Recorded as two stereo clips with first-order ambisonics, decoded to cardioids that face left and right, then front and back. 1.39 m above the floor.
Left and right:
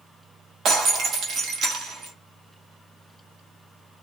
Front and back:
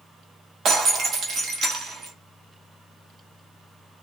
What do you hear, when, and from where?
0.7 s breaking glass: 135° right, 1.0 m